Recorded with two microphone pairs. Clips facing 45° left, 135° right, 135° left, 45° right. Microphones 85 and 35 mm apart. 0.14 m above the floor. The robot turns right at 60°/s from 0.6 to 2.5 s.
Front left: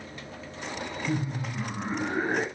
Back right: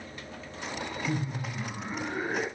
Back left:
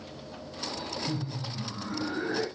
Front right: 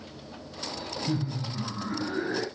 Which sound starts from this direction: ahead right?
Laughter, at 1.1 s.